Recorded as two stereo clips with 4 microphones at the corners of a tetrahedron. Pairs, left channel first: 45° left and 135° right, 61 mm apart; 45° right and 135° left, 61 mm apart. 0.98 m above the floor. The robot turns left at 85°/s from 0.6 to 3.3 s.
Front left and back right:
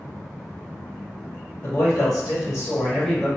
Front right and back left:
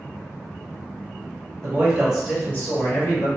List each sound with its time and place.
1.6 s a man speaking: 90° left, 1.5 m; by 3.3 s 50° right, 1.5 m